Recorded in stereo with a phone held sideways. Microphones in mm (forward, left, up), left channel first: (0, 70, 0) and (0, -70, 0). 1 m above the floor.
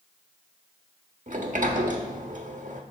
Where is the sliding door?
65° right (ahead or behind), 1.1 m.